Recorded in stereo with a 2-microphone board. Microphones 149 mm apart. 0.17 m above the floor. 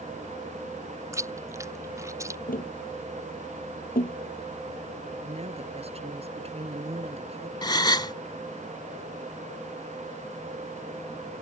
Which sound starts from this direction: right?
A woman speaking, at 5.2 s.